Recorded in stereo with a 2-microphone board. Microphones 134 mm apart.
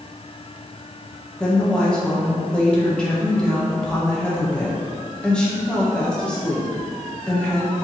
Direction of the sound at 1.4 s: 5° left (ahead or behind).